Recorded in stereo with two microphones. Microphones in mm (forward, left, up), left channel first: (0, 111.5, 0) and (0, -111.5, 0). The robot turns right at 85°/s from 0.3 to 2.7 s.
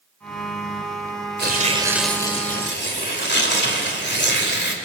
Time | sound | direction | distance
1.4 | tearing paper | 55° right | 2.5 m